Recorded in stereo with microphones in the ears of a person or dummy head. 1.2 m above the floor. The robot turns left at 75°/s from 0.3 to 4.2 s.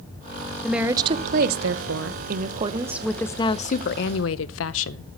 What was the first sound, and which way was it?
A woman speaking, straight ahead.